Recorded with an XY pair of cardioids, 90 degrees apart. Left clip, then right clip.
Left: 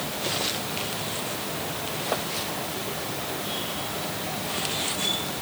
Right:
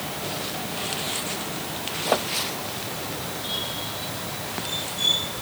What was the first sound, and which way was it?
Only background noise.